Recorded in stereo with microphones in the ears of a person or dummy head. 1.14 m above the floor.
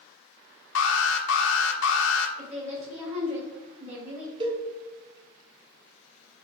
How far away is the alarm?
About 1.1 m.